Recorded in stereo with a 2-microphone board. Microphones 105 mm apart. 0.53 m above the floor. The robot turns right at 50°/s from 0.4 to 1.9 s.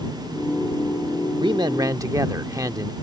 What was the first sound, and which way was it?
A man speaking, 45° right (ahead or behind).